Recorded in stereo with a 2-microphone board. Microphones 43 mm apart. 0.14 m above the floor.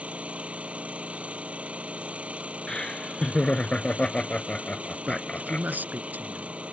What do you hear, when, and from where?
0.0 s an engine running: 30° right (ahead or behind)
2.7 s laughter: 20° left (ahead or behind)
5.1 s a man speaking: 45° right (ahead or behind)